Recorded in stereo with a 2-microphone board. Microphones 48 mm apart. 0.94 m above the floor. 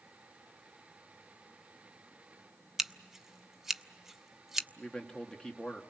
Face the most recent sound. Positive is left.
turn(degrees=15)  # may be behind; listen again after turning